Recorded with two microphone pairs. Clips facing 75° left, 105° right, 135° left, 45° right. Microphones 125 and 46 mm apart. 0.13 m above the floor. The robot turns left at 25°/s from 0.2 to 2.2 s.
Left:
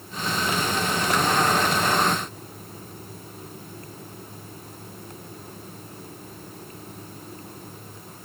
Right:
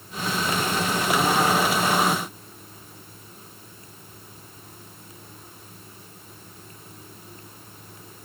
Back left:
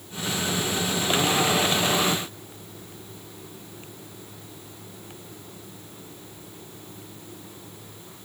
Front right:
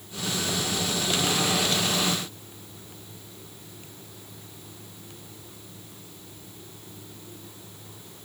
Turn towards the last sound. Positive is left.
No sound to turn to.